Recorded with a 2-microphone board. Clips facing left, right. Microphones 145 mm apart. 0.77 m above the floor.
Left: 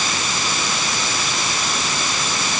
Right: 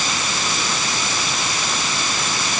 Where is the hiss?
I don't hear a hiss.